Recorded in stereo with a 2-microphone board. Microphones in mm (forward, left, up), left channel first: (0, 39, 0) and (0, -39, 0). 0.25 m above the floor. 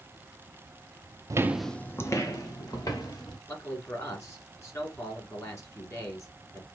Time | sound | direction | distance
1.3 | footsteps | 45° right (ahead or behind) | 0.5 m
3.5 | a man speaking | 35° left (ahead or behind) | 2.5 m